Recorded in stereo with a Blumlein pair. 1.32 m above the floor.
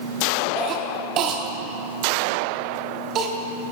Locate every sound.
0.6 s a cough: 30° right, 0.6 m